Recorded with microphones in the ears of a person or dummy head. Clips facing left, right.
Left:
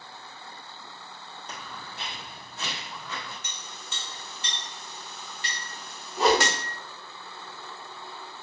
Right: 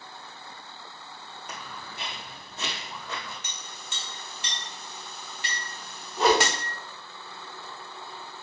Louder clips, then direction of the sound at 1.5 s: Right 1 dB; 10° right (ahead or behind).